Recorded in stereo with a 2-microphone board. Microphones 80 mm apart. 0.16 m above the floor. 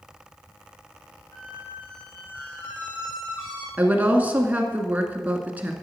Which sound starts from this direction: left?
A squeak, at 1.3 s.